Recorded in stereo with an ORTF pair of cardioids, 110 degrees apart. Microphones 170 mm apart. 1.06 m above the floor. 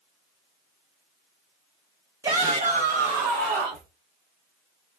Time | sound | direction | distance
2.2 | a shout | 15° right | 0.6 m